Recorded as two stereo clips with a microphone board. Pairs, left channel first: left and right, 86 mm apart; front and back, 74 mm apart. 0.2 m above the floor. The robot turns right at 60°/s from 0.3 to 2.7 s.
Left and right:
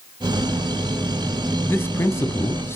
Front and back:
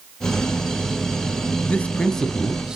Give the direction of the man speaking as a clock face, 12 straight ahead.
10 o'clock.